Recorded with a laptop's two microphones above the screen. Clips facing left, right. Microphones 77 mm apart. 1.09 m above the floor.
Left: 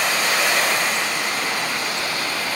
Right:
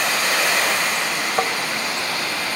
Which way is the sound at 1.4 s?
60° right (ahead or behind).